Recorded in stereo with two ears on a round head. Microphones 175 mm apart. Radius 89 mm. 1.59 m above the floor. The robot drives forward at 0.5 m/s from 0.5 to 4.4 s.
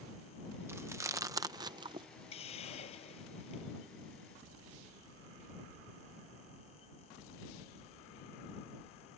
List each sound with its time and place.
0.7 s chewing: 15° right (ahead or behind); by 2.1 s 25° right (ahead or behind)
2.3 s a hiss: 30° left (ahead or behind)